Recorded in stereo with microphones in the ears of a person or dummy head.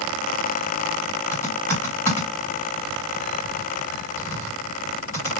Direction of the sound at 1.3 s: 15° left (ahead or behind).